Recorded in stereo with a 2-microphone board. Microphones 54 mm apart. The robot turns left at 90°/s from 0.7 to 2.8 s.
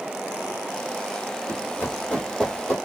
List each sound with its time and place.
1.5 s running footsteps: 40° left (ahead or behind), 1.7 m; by 2.8 s 5° left (ahead or behind), 1.3 m